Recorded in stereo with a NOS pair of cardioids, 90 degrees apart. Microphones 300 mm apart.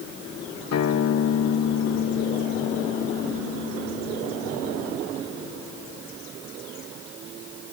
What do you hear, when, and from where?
0.7 s a guitar: 55° left